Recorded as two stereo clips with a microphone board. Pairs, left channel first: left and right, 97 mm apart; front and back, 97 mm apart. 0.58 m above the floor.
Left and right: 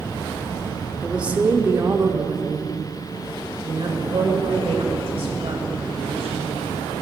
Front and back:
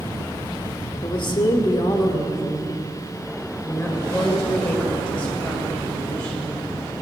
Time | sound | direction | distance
1.0 | a woman speaking | 10° right | 1.2 m